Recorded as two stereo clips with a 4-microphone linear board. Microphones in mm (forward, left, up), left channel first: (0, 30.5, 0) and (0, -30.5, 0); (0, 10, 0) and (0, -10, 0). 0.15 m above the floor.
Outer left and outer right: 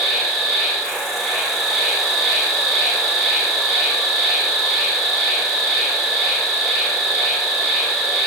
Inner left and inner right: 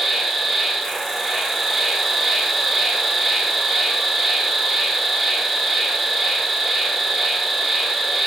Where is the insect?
10° left (ahead or behind), 1.5 m.